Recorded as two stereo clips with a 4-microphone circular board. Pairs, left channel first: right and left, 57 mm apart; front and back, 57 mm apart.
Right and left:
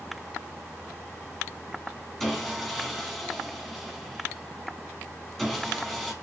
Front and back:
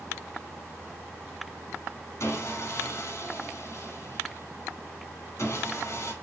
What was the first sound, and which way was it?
Sawing, 5° right.